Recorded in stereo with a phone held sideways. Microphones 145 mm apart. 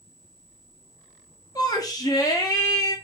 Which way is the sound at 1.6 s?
25° left (ahead or behind).